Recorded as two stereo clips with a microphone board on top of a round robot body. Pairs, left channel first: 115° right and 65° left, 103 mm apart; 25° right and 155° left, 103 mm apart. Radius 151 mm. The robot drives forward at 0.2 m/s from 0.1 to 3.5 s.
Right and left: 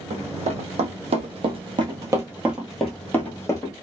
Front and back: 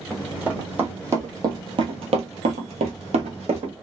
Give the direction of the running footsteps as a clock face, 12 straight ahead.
10 o'clock.